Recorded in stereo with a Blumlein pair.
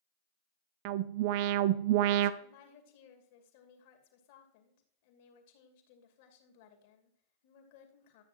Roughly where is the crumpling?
I don't hear crumpling.